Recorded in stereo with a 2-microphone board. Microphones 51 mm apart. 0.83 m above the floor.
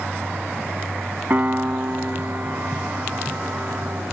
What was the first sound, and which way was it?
A piano, 45° right (ahead or behind).